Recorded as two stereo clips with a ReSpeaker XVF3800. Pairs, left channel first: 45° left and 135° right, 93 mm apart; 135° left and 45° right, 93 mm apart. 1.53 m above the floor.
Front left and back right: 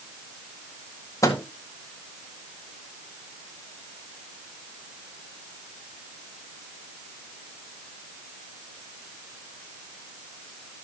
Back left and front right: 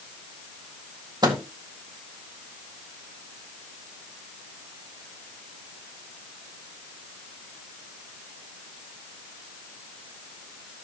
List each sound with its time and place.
1.2 s a microwave: 5° right, 1.7 m